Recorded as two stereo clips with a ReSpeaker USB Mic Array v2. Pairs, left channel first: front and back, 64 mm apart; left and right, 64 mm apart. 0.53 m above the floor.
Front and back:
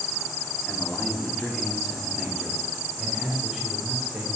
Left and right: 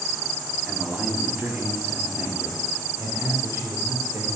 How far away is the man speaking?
About 1.2 m.